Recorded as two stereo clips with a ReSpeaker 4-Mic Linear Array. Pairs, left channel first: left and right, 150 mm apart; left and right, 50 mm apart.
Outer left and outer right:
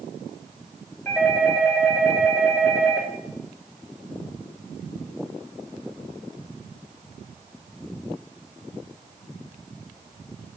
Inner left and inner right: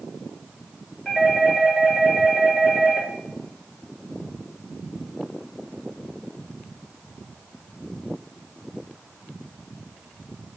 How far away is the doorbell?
About 3 m.